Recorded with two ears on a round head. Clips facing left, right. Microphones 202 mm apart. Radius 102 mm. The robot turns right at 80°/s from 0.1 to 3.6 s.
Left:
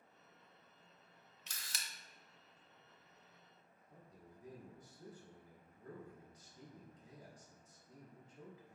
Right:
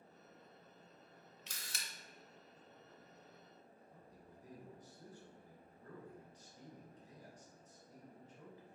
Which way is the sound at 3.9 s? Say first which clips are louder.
Left 3 dB; 15° left (ahead or behind).